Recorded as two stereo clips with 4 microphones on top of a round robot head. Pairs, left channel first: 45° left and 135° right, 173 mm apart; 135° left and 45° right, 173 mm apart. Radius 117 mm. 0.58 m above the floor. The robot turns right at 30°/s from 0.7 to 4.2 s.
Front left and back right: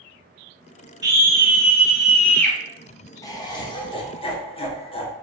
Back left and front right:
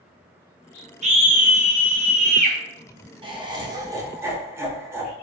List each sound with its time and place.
1.0 s a scream: 75° right, 0.9 m; by 2.6 s 30° right, 0.9 m
3.2 s laughter: 10° right, 0.8 m; by 5.1 s 20° left, 0.8 m